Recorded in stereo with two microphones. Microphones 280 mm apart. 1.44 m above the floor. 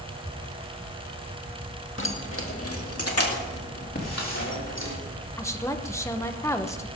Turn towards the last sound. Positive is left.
turn(degrees=10)  # may be behind; listen again after turning